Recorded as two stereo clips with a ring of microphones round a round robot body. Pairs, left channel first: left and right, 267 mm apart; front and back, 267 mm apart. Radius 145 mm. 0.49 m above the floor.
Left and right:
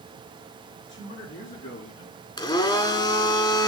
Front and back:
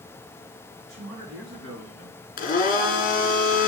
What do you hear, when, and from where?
0.9 s a man speaking: 145° left, 5.5 m; by 2.2 s 135° left, 4 m
2.4 s a blender: 30° left, 1.4 m